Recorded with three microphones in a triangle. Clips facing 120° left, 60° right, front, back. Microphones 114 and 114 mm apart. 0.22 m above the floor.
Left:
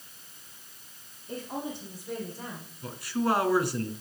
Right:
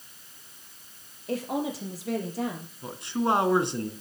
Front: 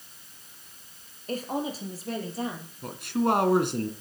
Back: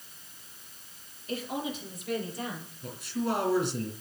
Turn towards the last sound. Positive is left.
turn(degrees=5)